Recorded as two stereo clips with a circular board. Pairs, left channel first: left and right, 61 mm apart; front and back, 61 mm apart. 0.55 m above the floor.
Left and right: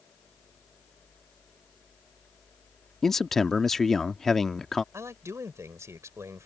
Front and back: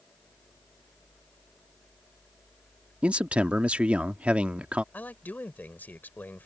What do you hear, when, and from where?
3.0 s a man speaking: 165° left
4.9 s a man speaking: 55° right